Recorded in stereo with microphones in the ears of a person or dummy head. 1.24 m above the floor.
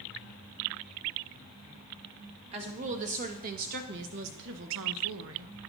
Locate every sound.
2.5 s a woman speaking: 35° right (ahead or behind), 2 m; by 5.5 s 75° right (ahead or behind), 1.4 m